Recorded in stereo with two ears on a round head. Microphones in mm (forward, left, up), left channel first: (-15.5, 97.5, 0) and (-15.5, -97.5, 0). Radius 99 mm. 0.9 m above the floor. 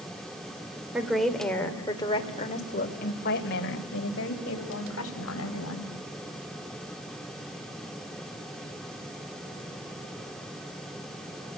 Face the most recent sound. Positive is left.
turn(degrees=70)  # may be behind; listen again after turning